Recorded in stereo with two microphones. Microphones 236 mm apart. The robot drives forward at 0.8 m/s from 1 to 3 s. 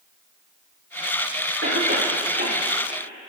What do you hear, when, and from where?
1.6 s a cough: 50° right (ahead or behind), 4.5 m; by 3.3 s 40° right (ahead or behind), 5 m